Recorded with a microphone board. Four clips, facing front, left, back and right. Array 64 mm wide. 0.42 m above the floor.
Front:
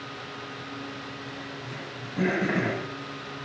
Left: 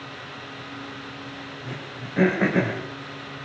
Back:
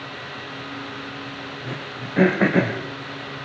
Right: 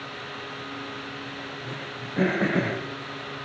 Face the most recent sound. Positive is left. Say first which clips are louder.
# even, back 6 dB
turn(degrees=170)